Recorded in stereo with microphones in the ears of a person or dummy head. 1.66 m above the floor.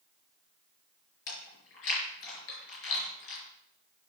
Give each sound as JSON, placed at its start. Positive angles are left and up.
{"t": 1.3, "sound": "chewing", "side_deg": 70, "distance_m": 4.5}